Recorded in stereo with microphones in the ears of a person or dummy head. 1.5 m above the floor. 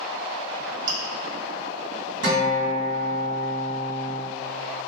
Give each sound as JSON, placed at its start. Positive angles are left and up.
{"t": 0.9, "sound": "chewing", "side_deg": -60, "distance_m": 1.2}
{"t": 2.2, "sound": "a guitar", "side_deg": -80, "distance_m": 1.9}